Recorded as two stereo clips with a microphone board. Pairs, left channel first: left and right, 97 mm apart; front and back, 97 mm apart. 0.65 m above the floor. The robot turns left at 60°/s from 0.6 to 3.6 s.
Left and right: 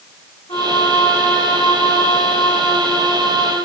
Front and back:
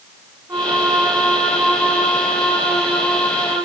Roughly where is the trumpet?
Behind left.